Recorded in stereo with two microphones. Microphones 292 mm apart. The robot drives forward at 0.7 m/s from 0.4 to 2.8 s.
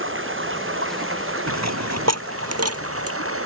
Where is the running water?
45° right (ahead or behind); by 3.5 s 50° right (ahead or behind).